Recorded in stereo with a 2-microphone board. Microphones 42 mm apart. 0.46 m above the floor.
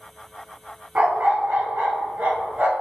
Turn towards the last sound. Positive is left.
turn(degrees=-40)  # may be behind; listen again after turning